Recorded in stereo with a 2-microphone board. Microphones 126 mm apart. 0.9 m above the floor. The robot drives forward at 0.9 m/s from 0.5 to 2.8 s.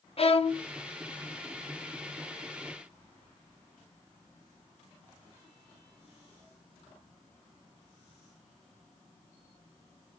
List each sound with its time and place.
0.2 s a violin: 50° left (ahead or behind), 0.8 m; by 0.7 s 55° left (ahead or behind), 0.8 m